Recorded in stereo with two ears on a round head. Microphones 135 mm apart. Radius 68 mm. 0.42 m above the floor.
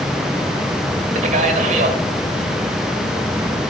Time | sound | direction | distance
1.1 | a man speaking | 55° right (ahead or behind) | 2 m